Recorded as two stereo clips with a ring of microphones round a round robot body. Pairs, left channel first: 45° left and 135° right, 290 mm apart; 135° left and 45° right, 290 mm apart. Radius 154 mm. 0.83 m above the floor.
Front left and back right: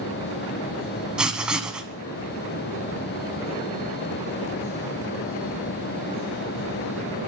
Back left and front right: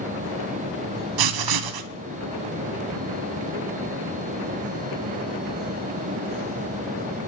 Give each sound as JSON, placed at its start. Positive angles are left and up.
{"t": 1.2, "sound": "writing", "azimuth_deg": -50, "distance_m": 1.2}